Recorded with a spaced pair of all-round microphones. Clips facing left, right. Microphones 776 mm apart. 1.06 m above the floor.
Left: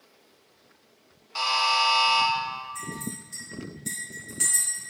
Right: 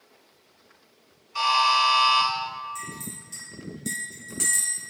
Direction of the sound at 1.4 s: 65° left (ahead or behind).